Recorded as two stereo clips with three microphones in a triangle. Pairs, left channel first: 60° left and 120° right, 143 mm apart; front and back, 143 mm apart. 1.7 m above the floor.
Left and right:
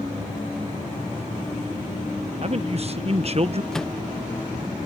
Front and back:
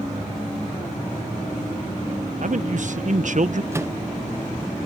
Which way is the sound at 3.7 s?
140° left.